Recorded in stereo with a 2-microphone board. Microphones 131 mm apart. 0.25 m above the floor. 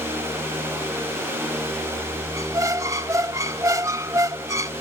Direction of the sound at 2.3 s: 25° right (ahead or behind).